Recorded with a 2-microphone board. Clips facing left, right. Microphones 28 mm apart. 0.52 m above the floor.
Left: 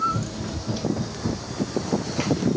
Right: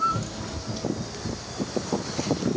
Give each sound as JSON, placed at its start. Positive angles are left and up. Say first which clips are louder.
{"t": 0.1, "sound": "running footsteps", "louder": "left 2 dB", "side_deg": -15, "distance_m": 0.6}